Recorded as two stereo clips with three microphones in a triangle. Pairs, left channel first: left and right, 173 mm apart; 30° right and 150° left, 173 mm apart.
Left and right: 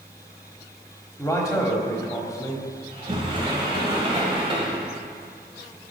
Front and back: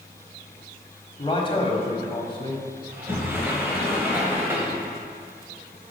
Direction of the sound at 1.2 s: 20° left.